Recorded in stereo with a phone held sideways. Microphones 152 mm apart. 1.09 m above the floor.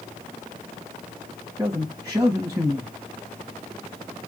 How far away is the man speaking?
About 1.4 m.